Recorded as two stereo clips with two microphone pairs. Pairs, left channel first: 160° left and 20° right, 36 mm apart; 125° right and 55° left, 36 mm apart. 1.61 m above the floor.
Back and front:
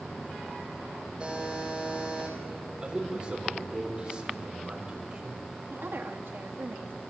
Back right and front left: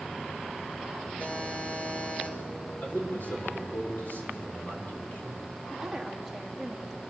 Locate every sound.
1.2 s a buzzer: 90° right, 9.5 m
2.8 s a man speaking: 90° right, 6.5 m
5.7 s a woman speaking: 35° right, 2 m